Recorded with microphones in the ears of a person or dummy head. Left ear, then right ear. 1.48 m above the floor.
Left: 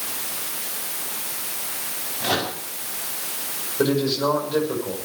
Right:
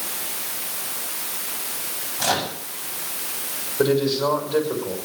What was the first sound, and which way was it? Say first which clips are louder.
A microwave: right 1 dB; 75° right (ahead or behind).